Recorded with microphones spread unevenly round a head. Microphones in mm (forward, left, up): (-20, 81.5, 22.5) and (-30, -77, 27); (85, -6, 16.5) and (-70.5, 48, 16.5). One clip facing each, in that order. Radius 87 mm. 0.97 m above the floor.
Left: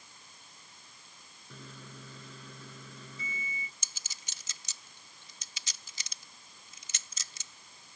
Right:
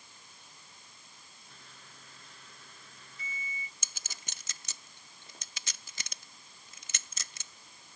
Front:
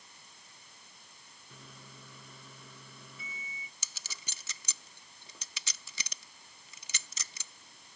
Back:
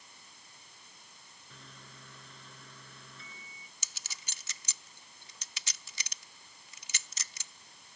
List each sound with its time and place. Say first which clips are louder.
1.5 s a microwave: left 11 dB, front 2 dB; 65° left
3.8 s a clink: right 3 dB, front 2 dB; 45° right